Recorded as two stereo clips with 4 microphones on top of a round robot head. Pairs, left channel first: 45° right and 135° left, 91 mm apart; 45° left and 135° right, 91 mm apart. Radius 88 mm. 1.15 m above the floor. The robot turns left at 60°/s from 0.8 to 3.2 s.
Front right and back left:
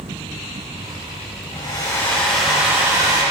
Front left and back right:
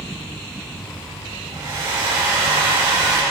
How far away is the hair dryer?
About 2.5 m.